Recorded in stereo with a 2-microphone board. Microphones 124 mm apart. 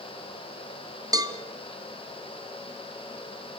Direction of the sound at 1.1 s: 30° right (ahead or behind).